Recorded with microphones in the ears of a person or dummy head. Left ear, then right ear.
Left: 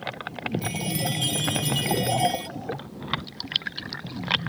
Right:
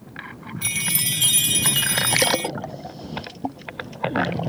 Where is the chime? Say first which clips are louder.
Right 9 dB; 30° right (ahead or behind).